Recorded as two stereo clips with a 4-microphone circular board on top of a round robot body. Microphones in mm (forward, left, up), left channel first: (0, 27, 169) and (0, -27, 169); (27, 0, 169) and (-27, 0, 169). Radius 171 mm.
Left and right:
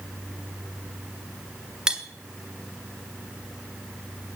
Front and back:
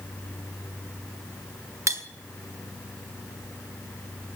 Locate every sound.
1.9 s cutlery clinking: 165° right, 1.5 m